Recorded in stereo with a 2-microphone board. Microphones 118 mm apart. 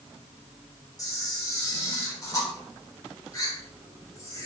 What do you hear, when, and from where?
1.0 s a camera shutter: 30° left (ahead or behind), 3.5 m